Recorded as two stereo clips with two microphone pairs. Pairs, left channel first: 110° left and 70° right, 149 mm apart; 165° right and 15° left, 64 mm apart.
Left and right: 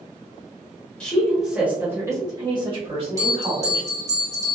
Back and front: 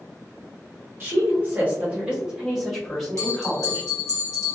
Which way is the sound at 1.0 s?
30° left.